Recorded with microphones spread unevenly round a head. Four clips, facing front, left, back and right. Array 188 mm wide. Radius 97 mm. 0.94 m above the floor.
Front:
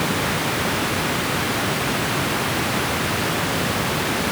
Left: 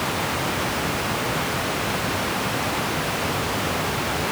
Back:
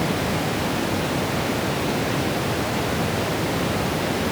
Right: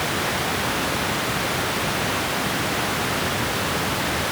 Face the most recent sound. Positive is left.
No sound to turn to.